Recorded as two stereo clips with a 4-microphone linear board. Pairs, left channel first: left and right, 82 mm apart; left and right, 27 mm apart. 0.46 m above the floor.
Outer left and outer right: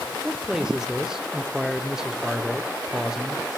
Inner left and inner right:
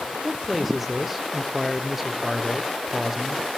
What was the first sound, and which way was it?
A man speaking, 5° right (ahead or behind).